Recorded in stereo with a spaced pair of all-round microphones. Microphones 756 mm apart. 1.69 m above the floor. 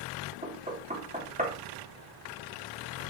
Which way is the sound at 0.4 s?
10° right (ahead or behind).